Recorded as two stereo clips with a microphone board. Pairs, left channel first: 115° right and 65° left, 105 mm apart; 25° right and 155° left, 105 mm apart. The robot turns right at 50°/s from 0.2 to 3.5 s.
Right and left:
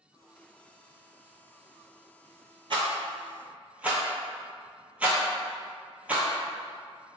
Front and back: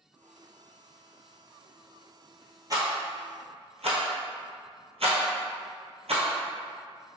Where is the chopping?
No chopping in this recording.